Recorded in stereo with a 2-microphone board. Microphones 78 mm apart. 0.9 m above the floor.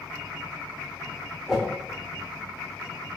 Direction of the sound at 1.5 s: 5° right (ahead or behind).